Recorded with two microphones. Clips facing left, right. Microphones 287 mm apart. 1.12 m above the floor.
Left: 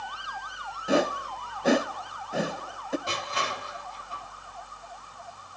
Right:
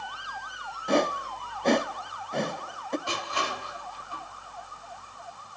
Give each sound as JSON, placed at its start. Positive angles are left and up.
{"t": 0.9, "sound": "a whoosh", "side_deg": 5, "distance_m": 0.7}
{"t": 3.1, "sound": "crushing", "side_deg": 20, "distance_m": 9.5}